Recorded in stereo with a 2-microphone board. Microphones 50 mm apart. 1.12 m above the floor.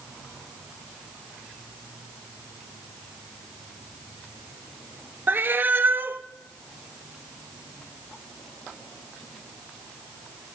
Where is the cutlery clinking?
No cutlery clinking in this recording.